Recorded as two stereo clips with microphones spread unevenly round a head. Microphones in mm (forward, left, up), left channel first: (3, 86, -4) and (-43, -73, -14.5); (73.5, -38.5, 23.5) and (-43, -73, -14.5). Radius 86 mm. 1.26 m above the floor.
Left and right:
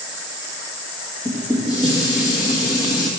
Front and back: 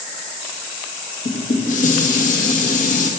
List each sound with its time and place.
1.2 s dishes clattering: 5° left, 1.4 m